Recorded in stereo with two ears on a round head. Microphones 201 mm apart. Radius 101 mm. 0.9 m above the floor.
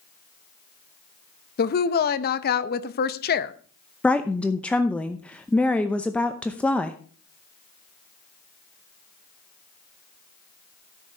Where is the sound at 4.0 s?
5° left (ahead or behind), 0.7 m.